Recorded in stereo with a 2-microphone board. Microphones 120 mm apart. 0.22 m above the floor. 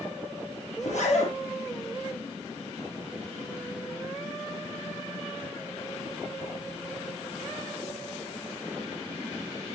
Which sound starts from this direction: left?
A zipper, at 0.8 s.